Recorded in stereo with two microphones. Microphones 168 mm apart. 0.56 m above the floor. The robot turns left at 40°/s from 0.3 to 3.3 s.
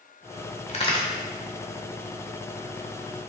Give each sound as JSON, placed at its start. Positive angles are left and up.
{"t": 0.7, "sound": "a crack", "side_deg": 40, "distance_m": 1.0}